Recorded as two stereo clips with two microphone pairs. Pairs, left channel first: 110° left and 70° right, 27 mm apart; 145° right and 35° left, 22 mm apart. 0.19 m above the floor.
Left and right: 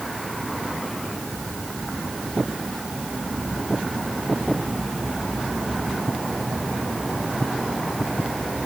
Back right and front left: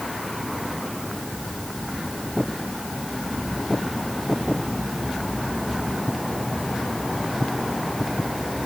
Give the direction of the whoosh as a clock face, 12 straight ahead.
No whoosh in this recording.